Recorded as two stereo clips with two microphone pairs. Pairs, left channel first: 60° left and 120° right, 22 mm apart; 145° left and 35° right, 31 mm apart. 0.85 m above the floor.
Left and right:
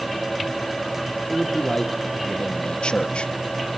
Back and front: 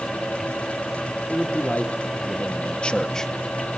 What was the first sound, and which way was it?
A man speaking, 115° left.